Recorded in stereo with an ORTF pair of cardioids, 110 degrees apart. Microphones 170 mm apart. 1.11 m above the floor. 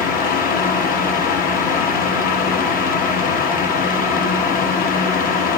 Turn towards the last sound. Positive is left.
turn(degrees=55)